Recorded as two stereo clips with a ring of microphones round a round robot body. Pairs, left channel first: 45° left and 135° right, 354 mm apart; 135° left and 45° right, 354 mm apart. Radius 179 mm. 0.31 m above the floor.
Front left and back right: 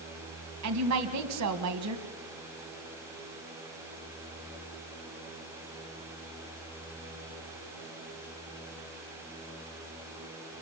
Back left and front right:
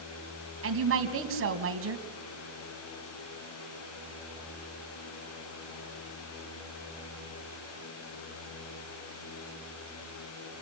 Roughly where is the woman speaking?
Right.